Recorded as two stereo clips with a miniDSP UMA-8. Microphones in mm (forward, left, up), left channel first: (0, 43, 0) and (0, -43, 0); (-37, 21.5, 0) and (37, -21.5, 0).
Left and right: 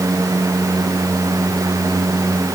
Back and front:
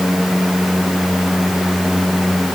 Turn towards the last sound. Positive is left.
No sound to turn to.